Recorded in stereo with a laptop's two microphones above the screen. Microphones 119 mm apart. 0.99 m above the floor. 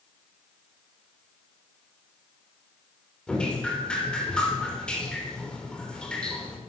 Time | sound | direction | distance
3.3 | dripping | 10° left (ahead or behind) | 4.5 m